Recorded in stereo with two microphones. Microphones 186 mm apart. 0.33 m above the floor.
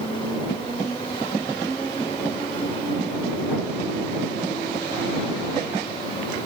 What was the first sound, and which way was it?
Only background noise.